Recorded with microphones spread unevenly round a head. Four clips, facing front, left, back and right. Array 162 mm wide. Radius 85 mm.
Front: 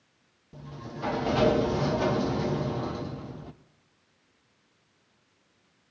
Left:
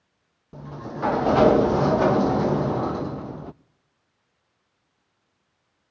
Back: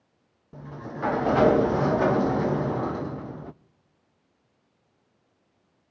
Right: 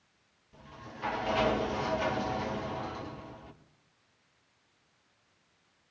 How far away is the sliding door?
About 0.5 m.